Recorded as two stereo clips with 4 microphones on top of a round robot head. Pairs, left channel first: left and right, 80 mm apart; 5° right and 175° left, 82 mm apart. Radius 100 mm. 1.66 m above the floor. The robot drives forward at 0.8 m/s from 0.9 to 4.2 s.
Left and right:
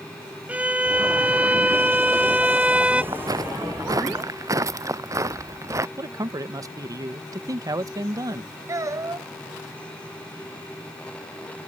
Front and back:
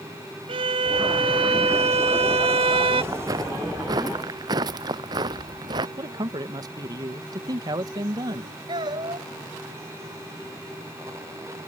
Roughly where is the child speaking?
Behind right.